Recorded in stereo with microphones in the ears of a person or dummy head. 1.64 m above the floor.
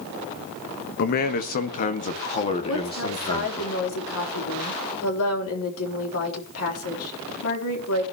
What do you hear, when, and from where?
1.0 s a man speaking: 50° left (ahead or behind), 1.4 m; by 3.7 s 20° left (ahead or behind), 3 m
2.7 s a woman speaking: 85° left, 4 m